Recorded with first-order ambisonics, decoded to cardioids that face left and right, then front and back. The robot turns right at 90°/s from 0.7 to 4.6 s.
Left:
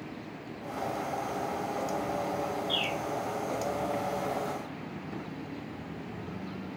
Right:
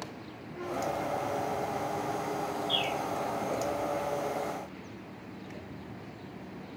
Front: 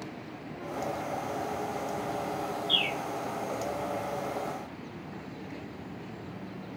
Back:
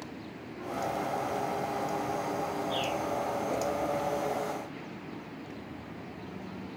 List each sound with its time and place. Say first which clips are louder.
2.7 s a bird: right 1 dB, front 8 dB; 5° right, 2.5 m; by 3.0 s 20° left, 2.5 m